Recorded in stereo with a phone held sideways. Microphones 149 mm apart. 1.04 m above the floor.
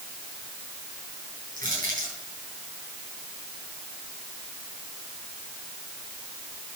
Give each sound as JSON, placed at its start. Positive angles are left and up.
{"t": 1.6, "sound": "crushing", "side_deg": -60, "distance_m": 8.0}